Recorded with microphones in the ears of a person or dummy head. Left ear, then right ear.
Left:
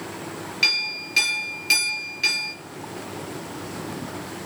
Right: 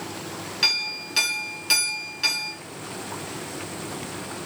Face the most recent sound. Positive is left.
turn(degrees=0)  # may be behind; listen again after turning